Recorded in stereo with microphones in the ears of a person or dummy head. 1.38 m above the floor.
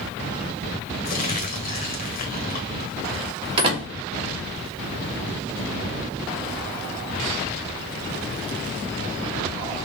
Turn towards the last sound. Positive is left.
turn(degrees=-30)  # may be behind; listen again after turning